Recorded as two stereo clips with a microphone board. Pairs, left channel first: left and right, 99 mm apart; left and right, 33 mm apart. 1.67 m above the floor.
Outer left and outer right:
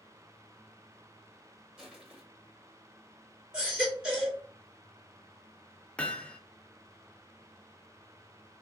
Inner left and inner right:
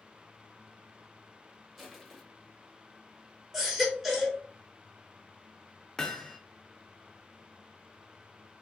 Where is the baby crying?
10° right (ahead or behind), 2 m.